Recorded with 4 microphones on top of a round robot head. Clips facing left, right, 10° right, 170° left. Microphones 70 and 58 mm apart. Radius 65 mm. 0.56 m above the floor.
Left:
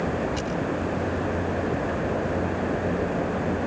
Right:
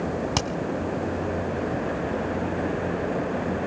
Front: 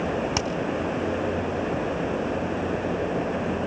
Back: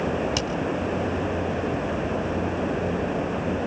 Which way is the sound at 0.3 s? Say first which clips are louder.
Right 2 dB, front 1 dB; 75° right.